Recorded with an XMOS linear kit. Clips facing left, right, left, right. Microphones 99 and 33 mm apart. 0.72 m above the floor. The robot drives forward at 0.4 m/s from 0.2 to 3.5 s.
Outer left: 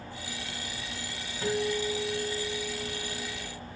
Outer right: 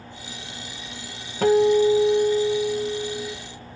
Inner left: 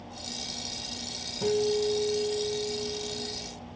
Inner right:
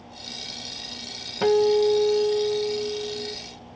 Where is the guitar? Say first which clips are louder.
Outer right 14 dB, inner right 8 dB; 65° right (ahead or behind), 1.2 m; by 3.4 s 75° right (ahead or behind), 1.2 m.